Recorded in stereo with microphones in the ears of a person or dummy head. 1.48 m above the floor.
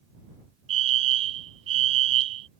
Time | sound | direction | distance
0.7 | a fire alarm | 35° right (ahead or behind) | ?